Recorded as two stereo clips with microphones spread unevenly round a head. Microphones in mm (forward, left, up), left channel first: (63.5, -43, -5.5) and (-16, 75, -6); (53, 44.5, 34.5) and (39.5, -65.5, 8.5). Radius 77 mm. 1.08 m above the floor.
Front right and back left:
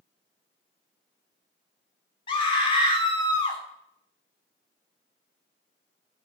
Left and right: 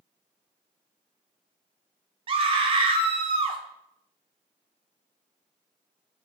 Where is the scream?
115° right, 1.1 m.